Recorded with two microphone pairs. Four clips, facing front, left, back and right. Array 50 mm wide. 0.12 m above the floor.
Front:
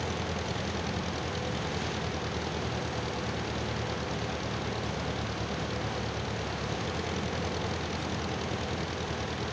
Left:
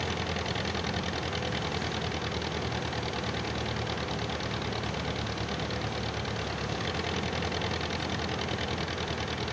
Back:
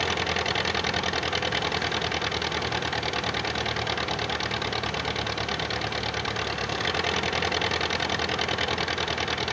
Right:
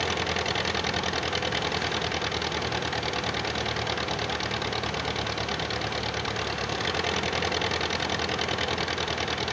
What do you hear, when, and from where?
0.0 s an engine running: 165° right